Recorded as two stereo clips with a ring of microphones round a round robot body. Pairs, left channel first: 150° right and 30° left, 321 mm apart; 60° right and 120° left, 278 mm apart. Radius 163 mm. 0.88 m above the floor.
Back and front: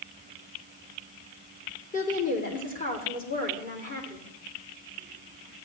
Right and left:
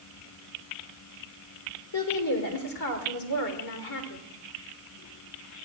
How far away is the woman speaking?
About 3 m.